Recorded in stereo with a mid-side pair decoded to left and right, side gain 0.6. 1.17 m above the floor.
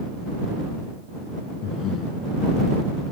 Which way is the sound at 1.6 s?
60° left.